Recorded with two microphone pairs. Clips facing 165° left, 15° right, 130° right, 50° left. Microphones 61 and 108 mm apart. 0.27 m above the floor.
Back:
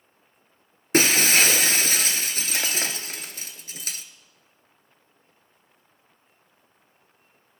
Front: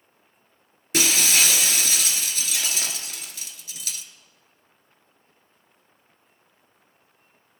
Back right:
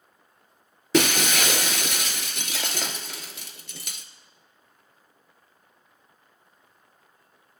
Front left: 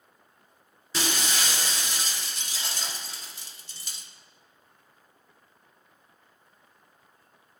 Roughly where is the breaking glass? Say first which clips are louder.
Back 4 dB, back right 9 dB; behind right.